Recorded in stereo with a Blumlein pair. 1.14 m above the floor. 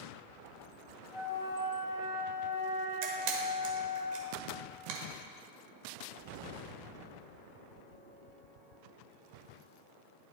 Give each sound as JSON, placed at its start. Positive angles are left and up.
{"t": 1.1, "sound": "a flute", "azimuth_deg": 55, "distance_m": 1.9}
{"t": 3.0, "sound": "a camera shutter", "azimuth_deg": -45, "distance_m": 1.4}